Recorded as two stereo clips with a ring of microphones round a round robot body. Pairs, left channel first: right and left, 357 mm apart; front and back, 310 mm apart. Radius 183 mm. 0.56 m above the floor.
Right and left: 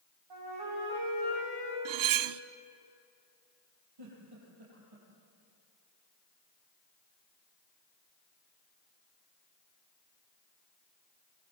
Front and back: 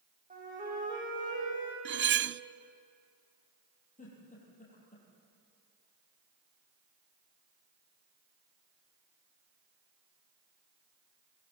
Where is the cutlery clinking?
125° left, 0.6 m.